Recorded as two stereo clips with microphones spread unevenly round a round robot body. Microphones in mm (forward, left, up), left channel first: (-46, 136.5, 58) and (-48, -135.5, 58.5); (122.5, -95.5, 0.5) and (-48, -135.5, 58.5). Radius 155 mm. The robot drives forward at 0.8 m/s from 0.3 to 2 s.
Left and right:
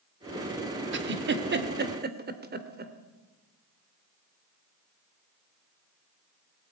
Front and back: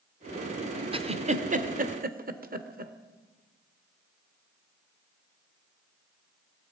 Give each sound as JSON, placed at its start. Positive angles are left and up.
{"t": 0.9, "sound": "a giggle", "azimuth_deg": -100, "distance_m": 1.8}